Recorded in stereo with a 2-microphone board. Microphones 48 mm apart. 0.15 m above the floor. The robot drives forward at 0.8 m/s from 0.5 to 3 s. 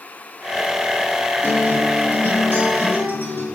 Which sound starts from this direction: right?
A guitar, at 1.4 s.